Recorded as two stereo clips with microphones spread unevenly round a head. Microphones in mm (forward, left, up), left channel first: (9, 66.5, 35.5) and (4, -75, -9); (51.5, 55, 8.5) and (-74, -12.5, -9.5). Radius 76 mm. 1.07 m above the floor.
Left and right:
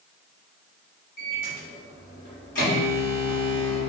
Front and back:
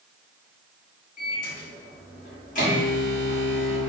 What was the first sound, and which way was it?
A microwave, 60° left.